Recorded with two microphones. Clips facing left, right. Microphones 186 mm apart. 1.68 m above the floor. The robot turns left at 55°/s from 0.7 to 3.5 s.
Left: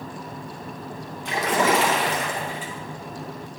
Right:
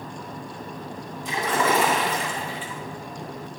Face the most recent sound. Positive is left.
turn(degrees=-5)